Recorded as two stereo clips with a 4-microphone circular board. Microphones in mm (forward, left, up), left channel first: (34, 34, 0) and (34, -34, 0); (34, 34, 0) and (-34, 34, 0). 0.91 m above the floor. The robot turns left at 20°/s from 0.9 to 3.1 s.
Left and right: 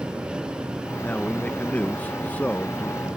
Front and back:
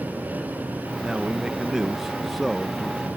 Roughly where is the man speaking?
Behind left.